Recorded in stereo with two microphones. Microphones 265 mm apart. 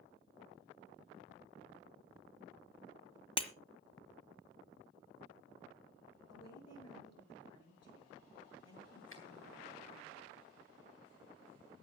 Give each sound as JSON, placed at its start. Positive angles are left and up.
{"t": 3.4, "sound": "breaking glass", "side_deg": 20, "distance_m": 1.2}
{"t": 6.3, "sound": "a woman speaking", "side_deg": 70, "distance_m": 8.0}
{"t": 9.1, "sound": "a finger snap", "side_deg": 55, "distance_m": 3.5}